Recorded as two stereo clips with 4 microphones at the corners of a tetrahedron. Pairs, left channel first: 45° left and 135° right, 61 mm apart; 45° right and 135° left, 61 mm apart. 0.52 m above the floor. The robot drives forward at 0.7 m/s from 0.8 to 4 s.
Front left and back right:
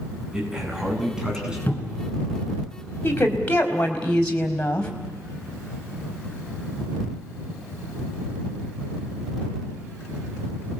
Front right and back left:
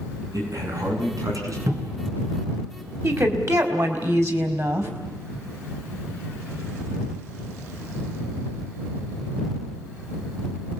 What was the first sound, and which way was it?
A man speaking, 145° left.